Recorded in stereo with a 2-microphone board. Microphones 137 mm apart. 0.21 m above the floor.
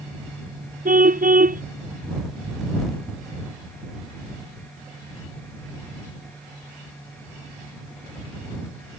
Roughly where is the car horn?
Right.